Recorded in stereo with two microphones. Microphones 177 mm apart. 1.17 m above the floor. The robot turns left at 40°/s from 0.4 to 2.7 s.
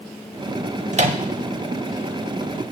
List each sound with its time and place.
0.9 s a microwave: 45° right (ahead or behind), 0.7 m; by 1.2 s 30° right (ahead or behind), 0.7 m